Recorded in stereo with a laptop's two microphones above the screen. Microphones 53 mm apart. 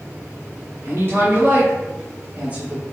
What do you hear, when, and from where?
0.8 s a woman speaking: 40° right (ahead or behind), 2 m; by 2.8 s 20° right (ahead or behind), 1.2 m